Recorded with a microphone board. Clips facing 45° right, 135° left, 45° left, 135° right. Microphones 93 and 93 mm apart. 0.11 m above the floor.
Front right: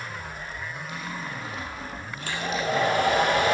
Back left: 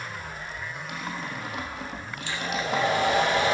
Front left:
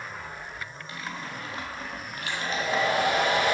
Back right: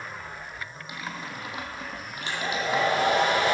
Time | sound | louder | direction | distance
0.9 | typing on a keyboard | back left 2 dB, even | 150° left | 2 m
2.2 | a hair dryer | front right 2 dB, back right 1 dB | 80° right | 3.5 m